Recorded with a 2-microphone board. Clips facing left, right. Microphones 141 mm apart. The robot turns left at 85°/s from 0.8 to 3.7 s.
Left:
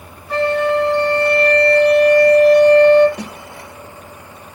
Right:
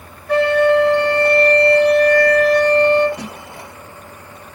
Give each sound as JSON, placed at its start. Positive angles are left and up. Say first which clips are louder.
{"t": 0.3, "sound": "a flute", "louder": "right 3 dB", "azimuth_deg": -80, "distance_m": 0.8}
{"t": 3.2, "sound": "a snare drum", "louder": "left 1 dB", "side_deg": 70, "distance_m": 1.3}